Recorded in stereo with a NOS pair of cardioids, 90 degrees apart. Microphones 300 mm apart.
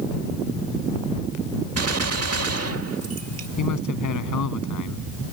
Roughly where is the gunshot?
Ahead right.